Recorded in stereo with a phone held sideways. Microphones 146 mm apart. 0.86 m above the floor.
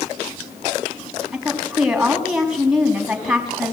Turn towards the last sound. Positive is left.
turn(degrees=-5)  # may be behind; listen again after turning